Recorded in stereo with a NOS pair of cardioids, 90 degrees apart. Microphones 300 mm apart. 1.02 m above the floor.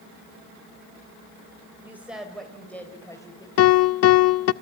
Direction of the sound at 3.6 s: 50° left.